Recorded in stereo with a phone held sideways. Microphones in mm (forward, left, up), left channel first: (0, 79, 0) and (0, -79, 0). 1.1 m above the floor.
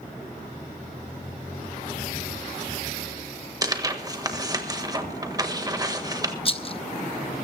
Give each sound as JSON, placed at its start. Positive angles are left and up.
{"t": 3.6, "sound": "tearing paper", "side_deg": -25, "distance_m": 1.5}
{"t": 6.5, "sound": "a rattle", "side_deg": 35, "distance_m": 0.6}